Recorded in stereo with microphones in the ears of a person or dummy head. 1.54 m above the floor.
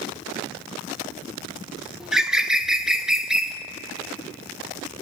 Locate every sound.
2.0 s a bird: 10° right (ahead or behind), 0.9 m